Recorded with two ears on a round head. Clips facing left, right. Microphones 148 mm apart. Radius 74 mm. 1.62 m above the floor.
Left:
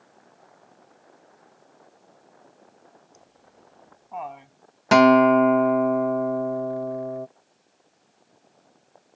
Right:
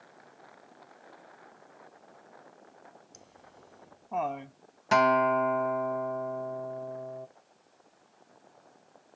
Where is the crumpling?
I don't hear crumpling.